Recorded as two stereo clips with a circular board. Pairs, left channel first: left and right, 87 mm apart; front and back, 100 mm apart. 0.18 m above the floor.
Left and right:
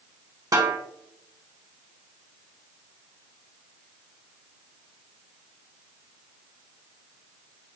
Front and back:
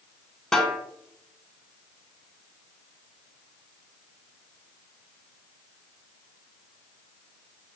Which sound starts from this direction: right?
A snare drum, at 0.5 s.